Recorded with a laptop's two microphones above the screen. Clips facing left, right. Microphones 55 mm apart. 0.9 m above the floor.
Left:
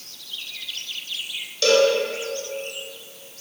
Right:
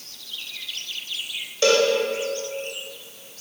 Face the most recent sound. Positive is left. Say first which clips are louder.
# left 1 dB
turn(degrees=-25)  # may be behind; listen again after turning